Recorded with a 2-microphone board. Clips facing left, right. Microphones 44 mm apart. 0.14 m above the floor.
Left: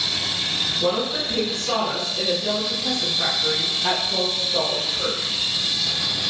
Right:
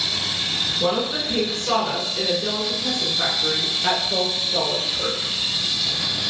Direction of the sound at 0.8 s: 25° right (ahead or behind).